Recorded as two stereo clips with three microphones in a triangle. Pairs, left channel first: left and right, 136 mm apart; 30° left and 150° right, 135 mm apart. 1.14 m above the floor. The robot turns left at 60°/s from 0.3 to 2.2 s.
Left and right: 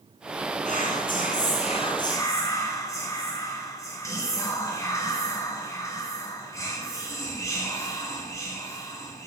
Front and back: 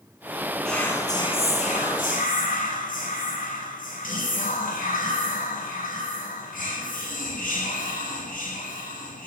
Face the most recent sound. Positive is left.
turn(degrees=25)